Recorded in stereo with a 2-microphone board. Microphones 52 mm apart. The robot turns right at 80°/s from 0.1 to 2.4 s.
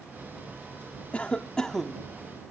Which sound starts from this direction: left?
A cough, at 1.1 s.